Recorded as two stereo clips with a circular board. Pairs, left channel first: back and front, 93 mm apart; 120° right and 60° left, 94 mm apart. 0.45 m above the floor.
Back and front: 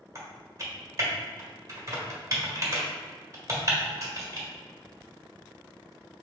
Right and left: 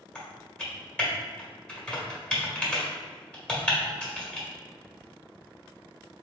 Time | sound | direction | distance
0.1 | typing on a keyboard | 40° right | 1.9 m